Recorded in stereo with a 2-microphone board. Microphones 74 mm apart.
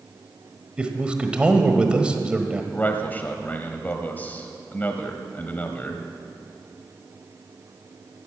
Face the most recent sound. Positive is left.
turn(degrees=25)  # may be behind; listen again after turning